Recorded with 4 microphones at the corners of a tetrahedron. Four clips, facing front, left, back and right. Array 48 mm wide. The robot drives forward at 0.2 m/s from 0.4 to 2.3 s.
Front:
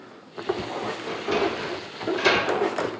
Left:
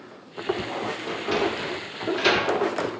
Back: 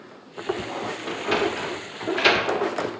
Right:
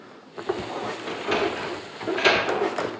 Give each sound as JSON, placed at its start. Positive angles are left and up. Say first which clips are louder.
{"t": 1.1, "sound": "a sliding door", "louder": "right 1 dB, back 1 dB", "azimuth_deg": -155, "distance_m": 0.8}